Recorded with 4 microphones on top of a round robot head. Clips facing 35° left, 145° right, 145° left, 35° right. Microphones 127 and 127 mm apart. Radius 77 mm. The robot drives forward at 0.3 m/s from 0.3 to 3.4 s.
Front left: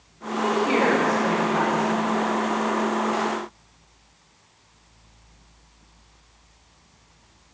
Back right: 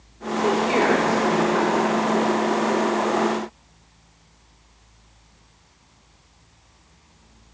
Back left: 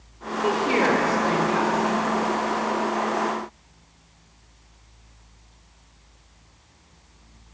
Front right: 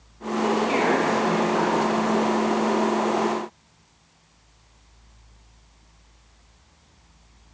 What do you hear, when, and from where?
0.4 s a woman speaking: 95° left, 2 m; by 2.0 s 110° left, 2 m